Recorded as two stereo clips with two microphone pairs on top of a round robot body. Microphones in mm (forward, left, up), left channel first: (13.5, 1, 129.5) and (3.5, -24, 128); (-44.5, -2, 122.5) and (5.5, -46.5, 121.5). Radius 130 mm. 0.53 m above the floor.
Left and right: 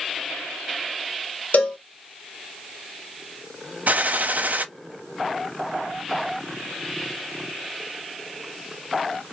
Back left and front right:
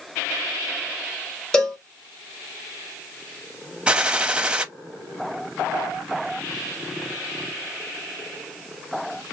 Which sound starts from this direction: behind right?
A gunshot, at 3.9 s.